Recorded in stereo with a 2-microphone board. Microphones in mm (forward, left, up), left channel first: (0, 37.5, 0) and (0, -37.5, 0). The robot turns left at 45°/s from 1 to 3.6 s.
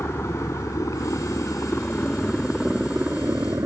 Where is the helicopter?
35° left (ahead or behind); by 3.7 s 35° right (ahead or behind).